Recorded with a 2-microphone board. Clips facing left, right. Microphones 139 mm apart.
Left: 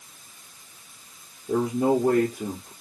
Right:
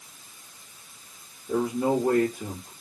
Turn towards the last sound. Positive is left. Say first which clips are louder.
# left 2 dB
turn(degrees=75)  # may be behind; listen again after turning